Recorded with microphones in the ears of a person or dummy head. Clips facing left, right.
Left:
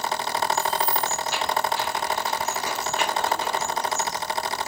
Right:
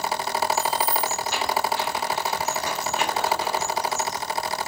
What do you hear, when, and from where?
0.6 s keys jangling: 60° right (ahead or behind), 0.5 m